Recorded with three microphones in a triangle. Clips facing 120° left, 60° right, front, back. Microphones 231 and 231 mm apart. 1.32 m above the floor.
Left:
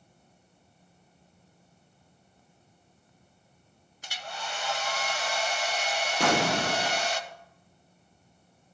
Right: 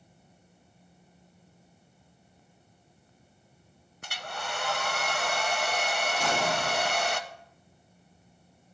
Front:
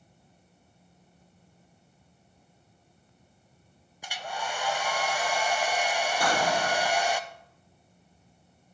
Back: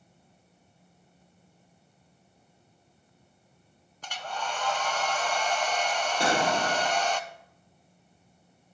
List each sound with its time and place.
4.0 s a hair dryer: 80° right, 0.7 m
6.2 s an explosion: 120° left, 0.5 m